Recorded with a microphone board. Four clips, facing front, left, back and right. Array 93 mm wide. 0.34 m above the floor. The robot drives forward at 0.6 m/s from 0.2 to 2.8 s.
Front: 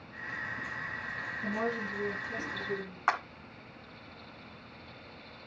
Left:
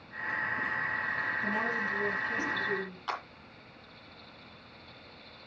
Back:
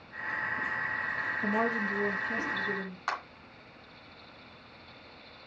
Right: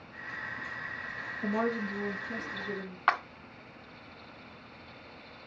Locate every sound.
1.4 s a woman speaking: 140° right, 4 m; by 3.0 s 145° right, 4.5 m
3.1 s a clap: 65° right, 1.8 m